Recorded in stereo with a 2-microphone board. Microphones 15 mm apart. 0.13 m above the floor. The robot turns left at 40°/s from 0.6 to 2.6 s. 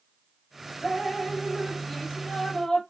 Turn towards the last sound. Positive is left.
turn(degrees=115)